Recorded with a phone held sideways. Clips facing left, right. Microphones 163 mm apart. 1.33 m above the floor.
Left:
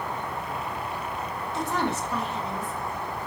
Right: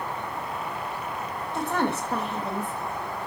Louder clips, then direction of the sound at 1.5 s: Right 2 dB; 55° right (ahead or behind).